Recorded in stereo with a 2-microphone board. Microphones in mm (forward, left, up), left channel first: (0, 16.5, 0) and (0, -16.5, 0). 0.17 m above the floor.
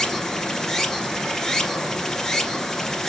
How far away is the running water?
About 0.8 m.